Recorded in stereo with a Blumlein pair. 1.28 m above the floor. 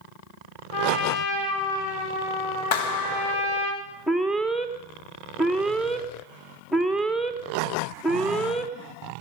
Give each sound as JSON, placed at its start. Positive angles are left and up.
{"t": 0.7, "sound": "a trumpet", "azimuth_deg": 50, "distance_m": 6.5}
{"t": 2.7, "sound": "a clap", "azimuth_deg": 45, "distance_m": 1.2}
{"t": 4.1, "sound": "an alarm", "azimuth_deg": 5, "distance_m": 1.3}